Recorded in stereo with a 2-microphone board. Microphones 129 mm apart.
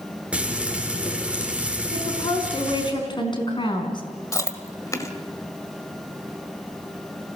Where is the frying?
10° right (ahead or behind), 4.5 m.